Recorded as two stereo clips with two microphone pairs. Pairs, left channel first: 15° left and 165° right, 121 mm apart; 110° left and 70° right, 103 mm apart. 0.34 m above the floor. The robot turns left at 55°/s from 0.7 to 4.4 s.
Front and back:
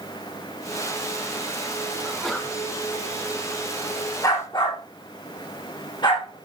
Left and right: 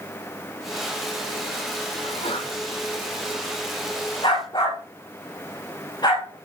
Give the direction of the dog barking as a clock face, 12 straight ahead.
10 o'clock.